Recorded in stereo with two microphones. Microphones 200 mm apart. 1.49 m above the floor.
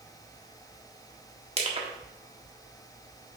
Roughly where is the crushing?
Right.